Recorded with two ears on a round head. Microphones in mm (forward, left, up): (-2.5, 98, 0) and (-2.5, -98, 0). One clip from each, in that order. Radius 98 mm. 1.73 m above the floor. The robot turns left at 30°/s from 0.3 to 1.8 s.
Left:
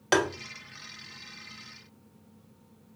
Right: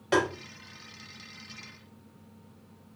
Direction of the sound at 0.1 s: 40° left (ahead or behind).